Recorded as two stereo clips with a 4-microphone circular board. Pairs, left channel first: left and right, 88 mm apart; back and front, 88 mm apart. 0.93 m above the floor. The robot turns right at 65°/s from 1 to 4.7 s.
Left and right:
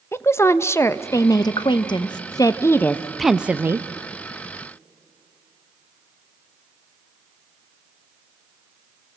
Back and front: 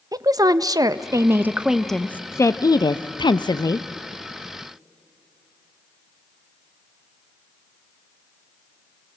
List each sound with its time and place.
0.1 s a woman speaking: 35° left, 0.5 m; by 3.9 s 135° right, 0.5 m